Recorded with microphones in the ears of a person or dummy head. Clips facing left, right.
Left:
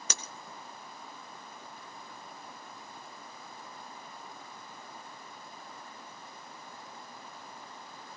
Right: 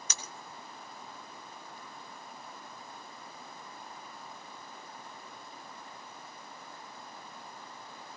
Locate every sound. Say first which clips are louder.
0.1 s breaking glass: left 2 dB; 55° left (ahead or behind), 3 m